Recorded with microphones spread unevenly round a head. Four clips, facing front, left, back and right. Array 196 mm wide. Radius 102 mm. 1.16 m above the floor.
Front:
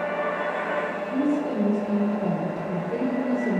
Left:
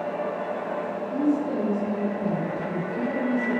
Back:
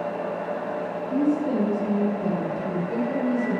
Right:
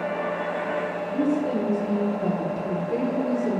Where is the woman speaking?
80° right, 5 m; by 3.6 s 65° right, 3.5 m.